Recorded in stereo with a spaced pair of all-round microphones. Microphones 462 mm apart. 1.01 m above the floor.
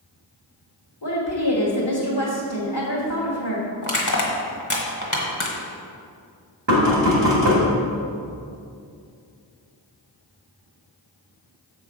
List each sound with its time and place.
1.0 s a woman speaking: 65° left (ahead or behind), 1.4 m
3.8 s crushing: 45° left (ahead or behind), 1.3 m
6.7 s knocking: 70° right (ahead or behind), 1.8 m